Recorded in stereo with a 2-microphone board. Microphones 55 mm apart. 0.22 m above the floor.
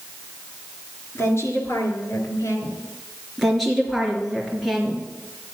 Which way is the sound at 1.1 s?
50° left (ahead or behind).